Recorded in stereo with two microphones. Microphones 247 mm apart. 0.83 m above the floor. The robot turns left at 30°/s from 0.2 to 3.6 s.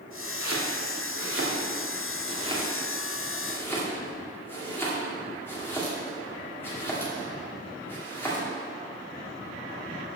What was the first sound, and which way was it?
Chopping, 70° right (ahead or behind).